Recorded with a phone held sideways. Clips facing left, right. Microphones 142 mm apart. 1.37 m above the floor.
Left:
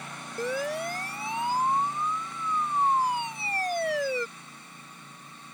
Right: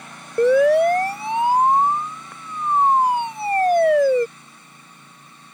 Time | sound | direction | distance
0.4 | a siren | 90° right | ?